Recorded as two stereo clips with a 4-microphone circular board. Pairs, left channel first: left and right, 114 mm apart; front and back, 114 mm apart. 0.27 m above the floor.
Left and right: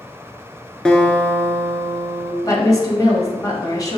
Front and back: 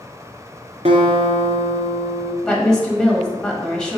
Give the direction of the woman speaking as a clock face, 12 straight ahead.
9 o'clock.